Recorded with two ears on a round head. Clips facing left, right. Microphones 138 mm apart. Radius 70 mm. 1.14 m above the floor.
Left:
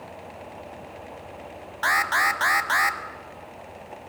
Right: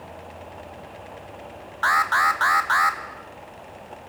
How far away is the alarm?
About 1.1 m.